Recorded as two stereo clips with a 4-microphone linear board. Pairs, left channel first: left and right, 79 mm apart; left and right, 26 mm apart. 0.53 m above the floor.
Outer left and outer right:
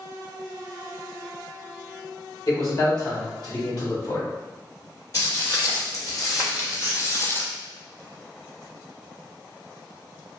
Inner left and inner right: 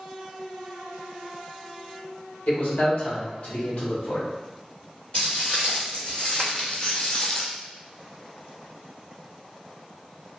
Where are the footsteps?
45° left (ahead or behind), 1.6 m; by 7.5 s 25° left (ahead or behind), 0.5 m.